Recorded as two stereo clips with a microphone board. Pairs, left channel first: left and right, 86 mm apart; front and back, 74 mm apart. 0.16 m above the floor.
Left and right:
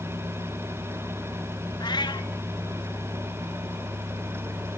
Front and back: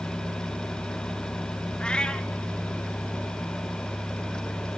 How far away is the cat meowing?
About 0.6 m.